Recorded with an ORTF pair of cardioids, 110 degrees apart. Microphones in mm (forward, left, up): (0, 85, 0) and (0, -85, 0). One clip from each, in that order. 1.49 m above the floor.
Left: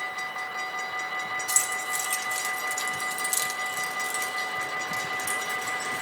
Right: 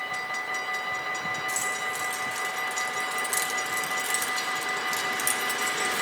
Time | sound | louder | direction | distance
1.5 | keys jangling | left 1 dB | 70° left | 2.5 m